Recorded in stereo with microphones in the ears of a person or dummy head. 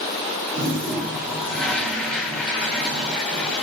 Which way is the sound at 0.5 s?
5° left (ahead or behind).